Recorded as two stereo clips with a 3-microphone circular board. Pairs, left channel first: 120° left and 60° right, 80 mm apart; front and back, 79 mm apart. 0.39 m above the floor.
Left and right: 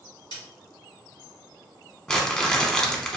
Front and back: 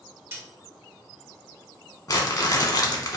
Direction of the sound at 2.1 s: 40° left.